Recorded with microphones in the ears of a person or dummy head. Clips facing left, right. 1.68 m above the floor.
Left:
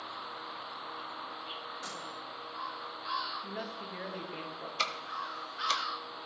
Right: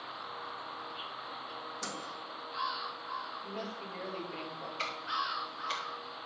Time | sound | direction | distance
1.8 | a microwave | 55° right (ahead or behind) | 1.4 m
3.4 | a woman speaking | 15° left (ahead or behind) | 1.9 m
4.8 | ticking | 65° left (ahead or behind) | 1.2 m